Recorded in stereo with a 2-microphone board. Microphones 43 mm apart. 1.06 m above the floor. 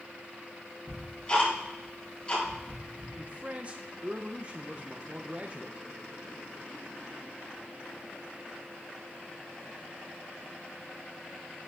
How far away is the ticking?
About 4.5 m.